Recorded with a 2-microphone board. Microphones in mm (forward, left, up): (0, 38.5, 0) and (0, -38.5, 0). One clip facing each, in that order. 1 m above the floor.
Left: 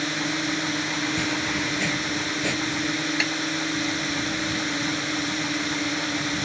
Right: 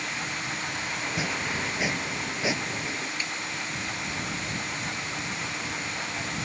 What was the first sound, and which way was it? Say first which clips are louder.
A drone: left 7 dB; 65° left (ahead or behind).